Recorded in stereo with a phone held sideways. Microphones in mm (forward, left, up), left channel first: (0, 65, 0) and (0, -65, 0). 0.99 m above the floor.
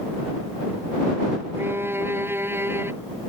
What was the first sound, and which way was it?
A violin, 15° right (ahead or behind).